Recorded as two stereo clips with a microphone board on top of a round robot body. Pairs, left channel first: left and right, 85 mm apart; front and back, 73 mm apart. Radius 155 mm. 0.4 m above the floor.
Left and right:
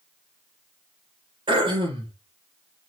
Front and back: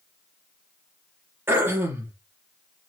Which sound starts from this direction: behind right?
Throat clearing, at 1.5 s.